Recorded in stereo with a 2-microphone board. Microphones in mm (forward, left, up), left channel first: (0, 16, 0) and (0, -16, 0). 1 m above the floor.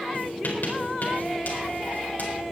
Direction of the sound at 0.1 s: 65° left (ahead or behind).